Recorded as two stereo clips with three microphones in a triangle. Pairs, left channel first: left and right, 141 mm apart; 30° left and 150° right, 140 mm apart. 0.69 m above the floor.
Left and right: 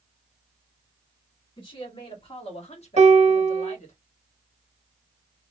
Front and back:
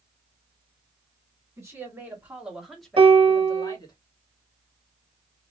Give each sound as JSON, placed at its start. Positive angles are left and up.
{"t": 1.6, "sound": "a woman speaking", "azimuth_deg": 145, "distance_m": 1.8}
{"t": 3.0, "sound": "a piano", "azimuth_deg": -110, "distance_m": 0.6}